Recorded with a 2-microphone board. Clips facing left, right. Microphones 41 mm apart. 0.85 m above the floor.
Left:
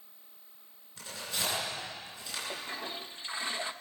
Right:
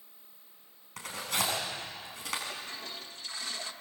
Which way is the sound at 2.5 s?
25° left (ahead or behind).